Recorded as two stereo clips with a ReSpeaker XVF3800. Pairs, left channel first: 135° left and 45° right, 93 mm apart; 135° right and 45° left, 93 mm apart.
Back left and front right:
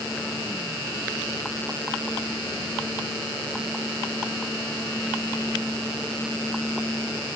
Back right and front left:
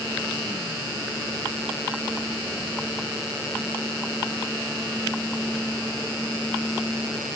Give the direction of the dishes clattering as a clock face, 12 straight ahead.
No dishes clattering in this recording.